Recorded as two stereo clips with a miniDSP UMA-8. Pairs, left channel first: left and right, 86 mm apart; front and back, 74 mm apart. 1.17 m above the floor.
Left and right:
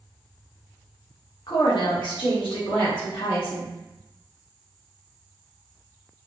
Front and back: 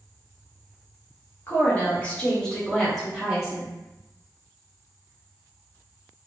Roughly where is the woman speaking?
Ahead left.